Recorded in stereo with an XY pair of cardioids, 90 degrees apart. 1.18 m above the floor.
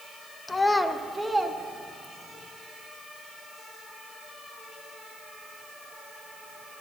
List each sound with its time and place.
0.5 s a child speaking: 25° left, 1.0 m; by 2.4 s 30° right, 2.5 m